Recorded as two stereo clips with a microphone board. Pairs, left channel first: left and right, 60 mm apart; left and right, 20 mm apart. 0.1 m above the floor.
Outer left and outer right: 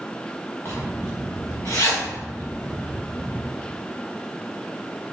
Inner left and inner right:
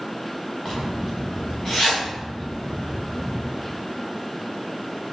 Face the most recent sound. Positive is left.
turn(degrees=40)  # may be behind; listen again after turning